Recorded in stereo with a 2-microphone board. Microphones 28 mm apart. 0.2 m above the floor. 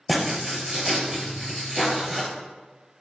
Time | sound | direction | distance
0.1 | writing | 5° right (ahead or behind) | 1.0 m